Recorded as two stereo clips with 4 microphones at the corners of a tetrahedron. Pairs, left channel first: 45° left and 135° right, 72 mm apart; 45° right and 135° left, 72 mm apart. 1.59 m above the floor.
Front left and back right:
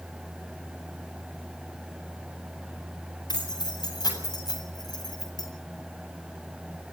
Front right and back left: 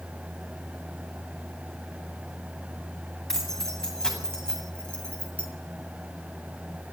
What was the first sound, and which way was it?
Keys jangling, 40° left.